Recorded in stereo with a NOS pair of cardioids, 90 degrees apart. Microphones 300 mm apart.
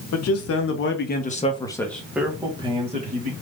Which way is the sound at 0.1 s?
60° left.